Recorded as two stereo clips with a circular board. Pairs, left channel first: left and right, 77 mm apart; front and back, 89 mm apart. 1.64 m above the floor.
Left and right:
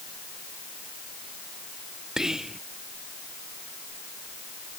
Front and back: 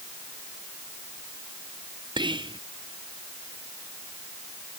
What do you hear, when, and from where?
2.2 s whispering: 170° right